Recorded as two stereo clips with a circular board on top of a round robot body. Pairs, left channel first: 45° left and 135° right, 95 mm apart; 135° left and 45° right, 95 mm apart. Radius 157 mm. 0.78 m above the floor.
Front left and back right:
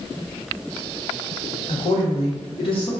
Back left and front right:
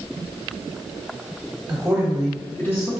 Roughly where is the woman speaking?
Ahead left.